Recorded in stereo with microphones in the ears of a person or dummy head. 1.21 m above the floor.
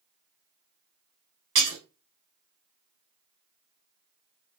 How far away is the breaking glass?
About 1.3 m.